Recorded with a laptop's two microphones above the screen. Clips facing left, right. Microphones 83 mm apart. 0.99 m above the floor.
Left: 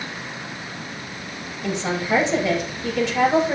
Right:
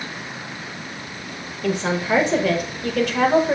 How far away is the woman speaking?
About 4.5 m.